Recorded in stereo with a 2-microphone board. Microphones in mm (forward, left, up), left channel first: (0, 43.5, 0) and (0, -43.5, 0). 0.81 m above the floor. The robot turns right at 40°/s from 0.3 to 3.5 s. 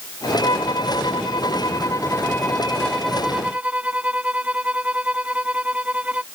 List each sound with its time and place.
0.4 s a violin: 75° left; by 6.2 s 165° right